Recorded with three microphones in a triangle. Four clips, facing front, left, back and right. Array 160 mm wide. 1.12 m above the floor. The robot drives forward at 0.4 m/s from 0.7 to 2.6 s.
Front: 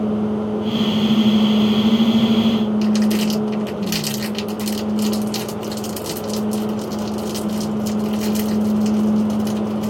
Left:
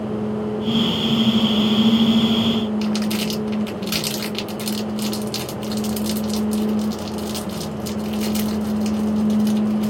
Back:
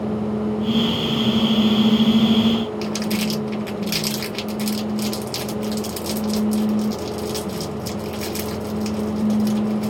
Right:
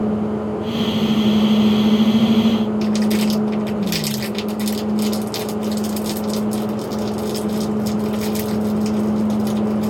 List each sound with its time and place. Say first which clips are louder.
2.8 s crumpling: right 4 dB, front 6 dB; 130° left, 1.0 m